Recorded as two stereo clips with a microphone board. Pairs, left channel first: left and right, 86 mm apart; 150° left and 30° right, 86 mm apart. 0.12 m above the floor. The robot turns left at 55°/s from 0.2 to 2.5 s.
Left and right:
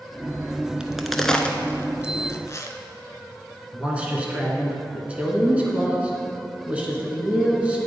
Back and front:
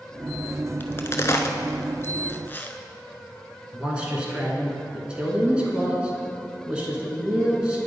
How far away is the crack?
About 0.5 m.